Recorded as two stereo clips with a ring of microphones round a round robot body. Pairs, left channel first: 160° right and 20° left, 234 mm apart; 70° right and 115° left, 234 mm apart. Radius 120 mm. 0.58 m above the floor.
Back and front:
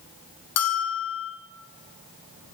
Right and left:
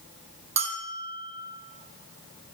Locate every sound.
0.6 s a bell: straight behind, 4 m